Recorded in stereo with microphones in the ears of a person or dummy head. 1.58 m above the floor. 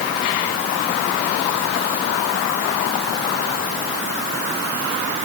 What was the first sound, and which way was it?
Only background noise.